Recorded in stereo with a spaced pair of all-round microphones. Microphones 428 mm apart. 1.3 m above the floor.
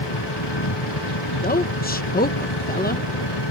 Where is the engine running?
80° left.